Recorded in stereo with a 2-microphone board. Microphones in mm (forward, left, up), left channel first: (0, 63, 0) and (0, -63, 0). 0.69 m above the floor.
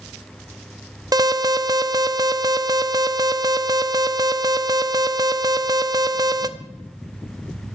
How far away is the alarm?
About 0.8 m.